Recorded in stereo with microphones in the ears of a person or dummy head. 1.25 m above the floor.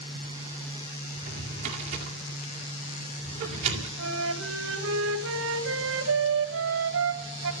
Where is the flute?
70° right (ahead or behind), 1.5 m.